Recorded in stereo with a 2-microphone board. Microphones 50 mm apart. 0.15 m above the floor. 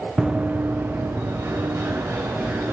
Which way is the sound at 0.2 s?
15° right (ahead or behind).